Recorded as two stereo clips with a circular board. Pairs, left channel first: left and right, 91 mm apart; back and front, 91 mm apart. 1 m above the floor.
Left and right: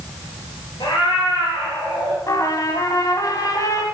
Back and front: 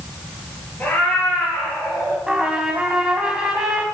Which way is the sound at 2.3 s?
75° left.